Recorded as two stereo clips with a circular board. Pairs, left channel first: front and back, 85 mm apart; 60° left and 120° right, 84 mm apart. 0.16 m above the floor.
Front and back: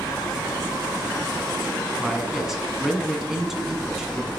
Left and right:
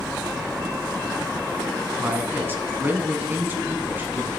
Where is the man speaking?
100° right, 1.4 m.